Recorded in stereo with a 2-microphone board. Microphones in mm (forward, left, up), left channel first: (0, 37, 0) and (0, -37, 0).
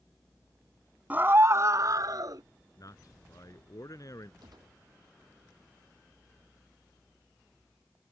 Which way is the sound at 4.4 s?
75° right (ahead or behind).